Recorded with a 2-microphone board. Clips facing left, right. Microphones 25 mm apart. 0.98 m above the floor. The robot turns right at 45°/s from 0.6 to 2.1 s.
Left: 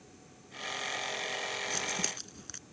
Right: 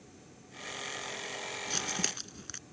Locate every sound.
1.7 s crumpling: 35° right (ahead or behind); by 2.6 s 15° right (ahead or behind)